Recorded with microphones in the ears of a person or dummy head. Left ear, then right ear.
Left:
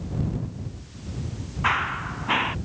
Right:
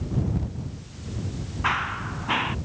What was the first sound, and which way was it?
Running footsteps, 10° left (ahead or behind).